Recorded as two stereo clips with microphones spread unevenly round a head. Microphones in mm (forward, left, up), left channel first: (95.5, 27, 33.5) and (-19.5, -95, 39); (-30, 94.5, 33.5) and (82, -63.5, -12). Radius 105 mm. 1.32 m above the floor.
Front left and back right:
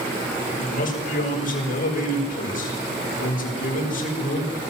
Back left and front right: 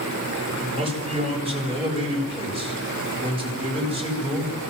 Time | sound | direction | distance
0.6 | a man speaking | 5° left | 8.5 m